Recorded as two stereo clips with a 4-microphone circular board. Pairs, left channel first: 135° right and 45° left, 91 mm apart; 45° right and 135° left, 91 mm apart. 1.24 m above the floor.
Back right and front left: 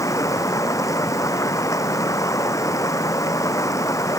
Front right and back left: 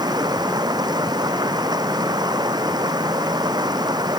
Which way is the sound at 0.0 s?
170° left.